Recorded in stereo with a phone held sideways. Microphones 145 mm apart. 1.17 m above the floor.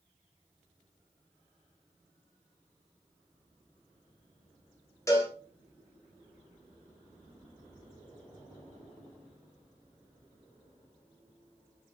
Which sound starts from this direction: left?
A cowbell, at 5.1 s.